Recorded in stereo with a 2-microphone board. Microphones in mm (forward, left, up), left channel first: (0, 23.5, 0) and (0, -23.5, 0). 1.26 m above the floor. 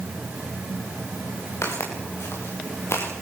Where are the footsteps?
75° left (ahead or behind), 8 m; by 3.1 s 70° left (ahead or behind), 8 m.